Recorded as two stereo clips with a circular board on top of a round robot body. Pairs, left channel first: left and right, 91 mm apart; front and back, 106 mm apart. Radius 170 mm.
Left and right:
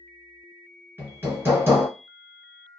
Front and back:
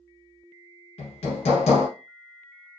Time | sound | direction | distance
1.0 | hammering | 25° right | 1.7 m